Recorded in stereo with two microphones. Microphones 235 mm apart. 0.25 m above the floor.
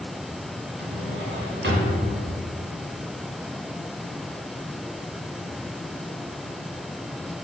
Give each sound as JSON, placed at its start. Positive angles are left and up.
{"t": 0.8, "sound": "a drawer", "side_deg": -55, "distance_m": 0.8}